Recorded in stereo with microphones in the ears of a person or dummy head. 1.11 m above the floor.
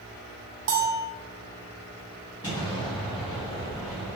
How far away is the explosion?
About 2.0 m.